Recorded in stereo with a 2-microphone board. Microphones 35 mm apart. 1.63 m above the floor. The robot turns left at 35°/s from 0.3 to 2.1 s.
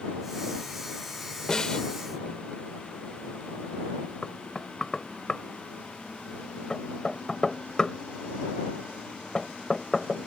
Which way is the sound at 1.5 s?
20° left (ahead or behind).